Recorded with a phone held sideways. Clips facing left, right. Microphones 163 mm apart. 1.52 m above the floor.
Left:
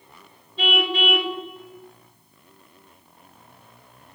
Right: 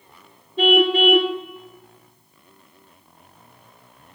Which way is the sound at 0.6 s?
50° right (ahead or behind).